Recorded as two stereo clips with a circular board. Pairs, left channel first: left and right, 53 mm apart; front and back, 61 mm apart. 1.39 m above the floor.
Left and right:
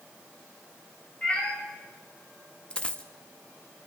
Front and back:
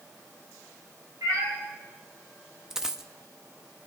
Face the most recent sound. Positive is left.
turn(degrees=110)